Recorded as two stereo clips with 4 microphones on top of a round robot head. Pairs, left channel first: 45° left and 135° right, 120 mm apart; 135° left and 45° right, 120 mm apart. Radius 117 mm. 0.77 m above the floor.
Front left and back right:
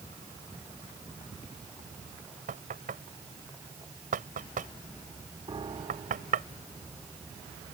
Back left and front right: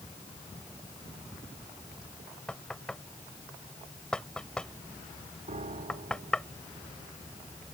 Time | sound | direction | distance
2.5 | knocking | 140° right | ?
5.5 | a piano | 80° right | ?